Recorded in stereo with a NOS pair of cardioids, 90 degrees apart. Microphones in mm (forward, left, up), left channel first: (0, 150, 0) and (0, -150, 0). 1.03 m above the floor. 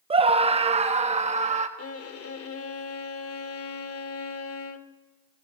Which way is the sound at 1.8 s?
50° left.